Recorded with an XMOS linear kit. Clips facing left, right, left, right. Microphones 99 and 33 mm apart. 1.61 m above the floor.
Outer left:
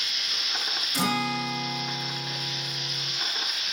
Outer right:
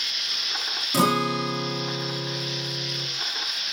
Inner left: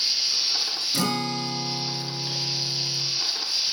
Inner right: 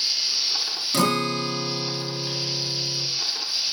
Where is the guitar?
85° right, 2 m.